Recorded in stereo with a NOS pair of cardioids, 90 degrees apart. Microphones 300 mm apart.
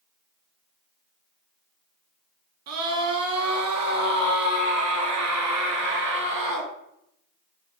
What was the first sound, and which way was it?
A scream, 60° right.